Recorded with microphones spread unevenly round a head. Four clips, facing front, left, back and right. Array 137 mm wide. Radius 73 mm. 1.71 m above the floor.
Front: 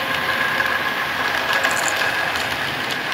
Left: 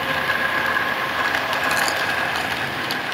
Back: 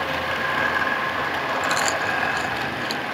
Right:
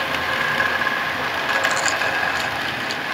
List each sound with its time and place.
1.6 s chewing: 135° left